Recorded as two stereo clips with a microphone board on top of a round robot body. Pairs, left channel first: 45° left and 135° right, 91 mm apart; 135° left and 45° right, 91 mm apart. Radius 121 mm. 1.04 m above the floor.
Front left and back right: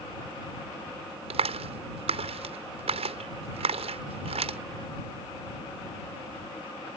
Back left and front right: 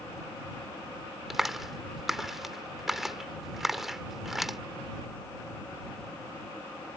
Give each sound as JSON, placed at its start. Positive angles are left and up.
{"t": 1.3, "sound": "a clap", "azimuth_deg": -130}